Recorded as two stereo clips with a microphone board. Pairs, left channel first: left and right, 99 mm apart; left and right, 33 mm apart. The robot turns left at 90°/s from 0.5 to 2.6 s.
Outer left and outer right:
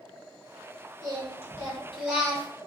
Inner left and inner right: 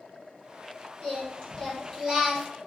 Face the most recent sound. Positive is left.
turn(degrees=-60)